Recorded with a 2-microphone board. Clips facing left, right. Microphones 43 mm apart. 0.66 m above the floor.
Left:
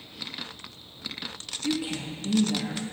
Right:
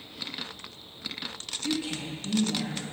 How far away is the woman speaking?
About 0.7 m.